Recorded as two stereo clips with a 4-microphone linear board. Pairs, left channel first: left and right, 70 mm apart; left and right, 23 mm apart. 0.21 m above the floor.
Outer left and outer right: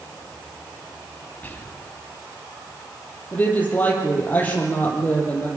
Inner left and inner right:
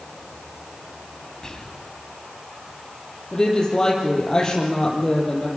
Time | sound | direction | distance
1.4 | whispering | 25° left (ahead or behind) | 1.3 m
3.3 | a woman speaking | 25° left (ahead or behind) | 6 m